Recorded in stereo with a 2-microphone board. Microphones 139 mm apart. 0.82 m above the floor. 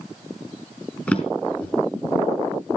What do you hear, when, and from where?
1.1 s a drawer: 10° left (ahead or behind), 3.5 m